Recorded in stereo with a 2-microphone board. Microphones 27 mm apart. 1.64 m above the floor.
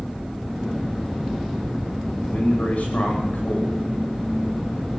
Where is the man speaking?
60° left (ahead or behind), 10 m.